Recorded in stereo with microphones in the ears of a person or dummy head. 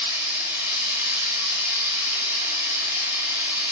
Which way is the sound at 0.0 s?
5° right (ahead or behind).